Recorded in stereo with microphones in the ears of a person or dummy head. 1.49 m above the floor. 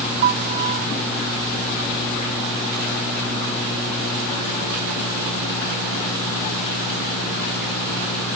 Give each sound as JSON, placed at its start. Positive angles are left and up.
{"t": 0.2, "sound": "a piano", "side_deg": -35}